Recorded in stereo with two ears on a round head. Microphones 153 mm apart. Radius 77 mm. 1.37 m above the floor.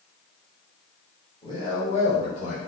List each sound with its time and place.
1.4 s a man speaking: 25° left (ahead or behind), 1.1 m; by 2.6 s 50° left (ahead or behind), 1.3 m